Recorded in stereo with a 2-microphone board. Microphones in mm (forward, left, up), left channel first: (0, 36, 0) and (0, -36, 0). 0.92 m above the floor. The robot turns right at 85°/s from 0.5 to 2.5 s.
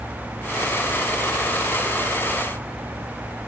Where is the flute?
I don't hear a flute.